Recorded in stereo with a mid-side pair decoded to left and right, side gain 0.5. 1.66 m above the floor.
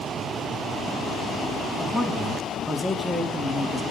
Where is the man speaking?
10° right, 4 m.